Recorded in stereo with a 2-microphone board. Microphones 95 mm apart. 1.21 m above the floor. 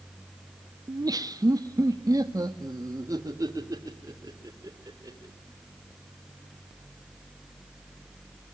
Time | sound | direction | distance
0.9 | laughter | 40° right (ahead or behind) | 0.6 m